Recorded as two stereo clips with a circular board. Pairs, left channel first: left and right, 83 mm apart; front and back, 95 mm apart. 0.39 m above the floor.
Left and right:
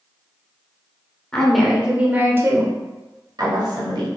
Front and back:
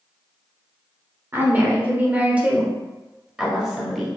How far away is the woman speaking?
About 1.0 m.